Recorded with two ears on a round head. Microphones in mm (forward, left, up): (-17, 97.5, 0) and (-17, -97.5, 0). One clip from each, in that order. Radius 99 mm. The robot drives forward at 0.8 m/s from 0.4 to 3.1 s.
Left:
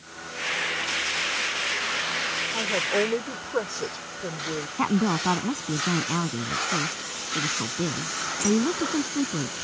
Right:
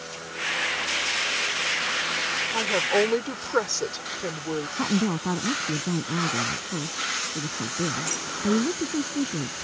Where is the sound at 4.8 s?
35° left (ahead or behind).